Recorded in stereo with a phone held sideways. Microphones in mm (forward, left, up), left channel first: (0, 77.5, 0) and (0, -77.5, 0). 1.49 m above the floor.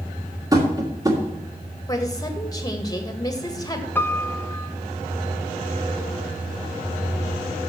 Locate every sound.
0.5 s tapping: 25° right (ahead or behind), 2 m
1.9 s a woman speaking: 25° left (ahead or behind), 1.7 m
4.0 s a piano: 10° left (ahead or behind), 0.7 m